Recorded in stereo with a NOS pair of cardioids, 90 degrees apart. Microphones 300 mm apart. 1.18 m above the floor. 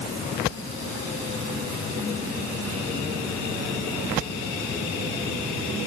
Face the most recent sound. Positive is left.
No sound to turn to.